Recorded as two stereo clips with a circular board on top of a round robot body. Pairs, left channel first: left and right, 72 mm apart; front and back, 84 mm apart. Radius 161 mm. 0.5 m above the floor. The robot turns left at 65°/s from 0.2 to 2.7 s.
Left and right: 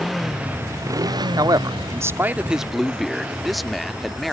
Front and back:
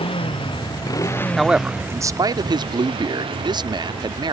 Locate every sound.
0.0 s a motorcycle: straight ahead; by 4.3 s 165° right
1.4 s a man speaking: 90° right; by 4.3 s straight behind